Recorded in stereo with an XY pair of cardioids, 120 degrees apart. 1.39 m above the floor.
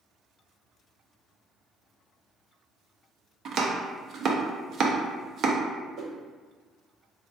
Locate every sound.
3.5 s chopping: 45° right, 0.6 m
6.0 s a whoosh: 45° right, 0.7 m